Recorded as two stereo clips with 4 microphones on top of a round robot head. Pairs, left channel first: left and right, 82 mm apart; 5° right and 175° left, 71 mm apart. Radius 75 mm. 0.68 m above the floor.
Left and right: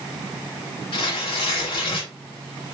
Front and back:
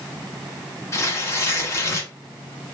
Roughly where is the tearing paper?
Ahead left.